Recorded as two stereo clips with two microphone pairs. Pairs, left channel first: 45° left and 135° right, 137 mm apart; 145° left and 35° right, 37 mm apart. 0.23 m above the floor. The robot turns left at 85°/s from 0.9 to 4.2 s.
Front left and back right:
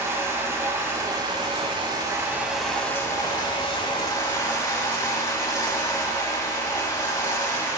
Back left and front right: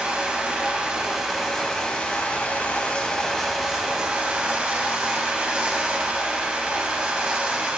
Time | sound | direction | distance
0.0 | running water | 80° right | 0.9 m